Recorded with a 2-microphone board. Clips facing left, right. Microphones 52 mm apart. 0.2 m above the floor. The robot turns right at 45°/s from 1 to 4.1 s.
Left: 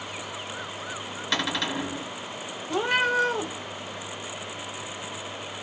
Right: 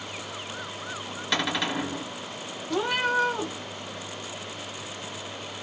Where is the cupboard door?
175° right, 1.2 m; by 2.1 s 140° right, 1.2 m.